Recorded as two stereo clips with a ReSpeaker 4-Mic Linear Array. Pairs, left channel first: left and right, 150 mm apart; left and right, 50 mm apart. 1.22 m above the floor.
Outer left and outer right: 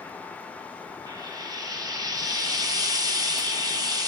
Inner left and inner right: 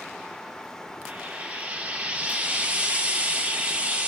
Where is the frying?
25° right (ahead or behind), 0.6 m.